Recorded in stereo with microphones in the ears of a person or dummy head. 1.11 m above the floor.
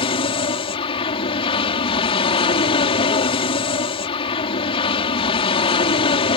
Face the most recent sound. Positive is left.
turn(degrees=30)  # may be behind; listen again after turning